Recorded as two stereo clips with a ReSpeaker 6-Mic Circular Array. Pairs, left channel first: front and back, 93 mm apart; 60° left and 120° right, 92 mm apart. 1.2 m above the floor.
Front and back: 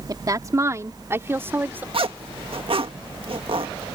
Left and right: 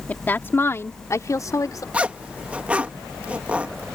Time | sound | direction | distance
0.1 | a woman speaking | 135° left | ?
1.9 | a zipper | 165° left | ?